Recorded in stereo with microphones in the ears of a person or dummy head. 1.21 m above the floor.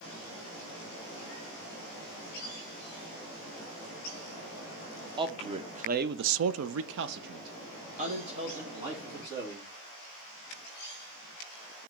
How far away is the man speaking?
About 1.0 m.